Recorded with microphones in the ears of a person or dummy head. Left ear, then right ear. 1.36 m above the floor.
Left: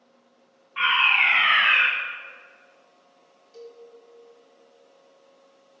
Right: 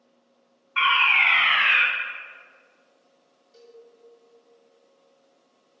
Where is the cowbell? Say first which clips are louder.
Left 6 dB; 20° left (ahead or behind), 2.5 m.